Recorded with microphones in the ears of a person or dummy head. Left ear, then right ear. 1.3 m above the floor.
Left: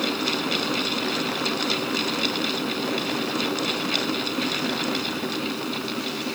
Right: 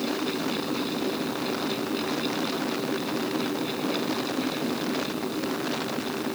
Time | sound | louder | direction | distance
0.0 | a fan | left 4 dB | 45° left (ahead or behind) | ?